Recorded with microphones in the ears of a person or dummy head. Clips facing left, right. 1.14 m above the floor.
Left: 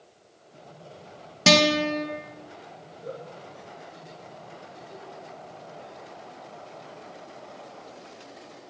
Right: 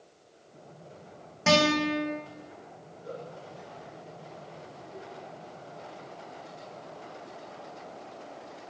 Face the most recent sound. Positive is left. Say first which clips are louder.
# left 2 dB
turn(degrees=75)  # may be behind; listen again after turning